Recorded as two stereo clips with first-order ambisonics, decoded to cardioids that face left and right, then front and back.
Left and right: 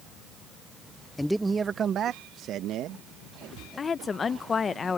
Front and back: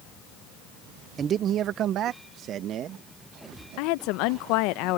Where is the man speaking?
160° left; by 3.0 s 130° right.